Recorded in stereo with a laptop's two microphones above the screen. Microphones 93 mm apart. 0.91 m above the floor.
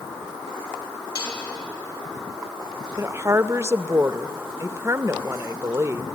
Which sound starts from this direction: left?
Dishes clattering, at 1.1 s.